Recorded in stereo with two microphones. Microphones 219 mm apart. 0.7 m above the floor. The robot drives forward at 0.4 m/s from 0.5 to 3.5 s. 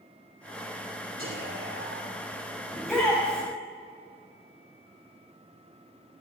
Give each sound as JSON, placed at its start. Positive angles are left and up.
{"t": 1.2, "sound": "whispering", "side_deg": -65, "distance_m": 2.5}
{"t": 2.7, "sound": "a shout", "side_deg": 0, "distance_m": 3.5}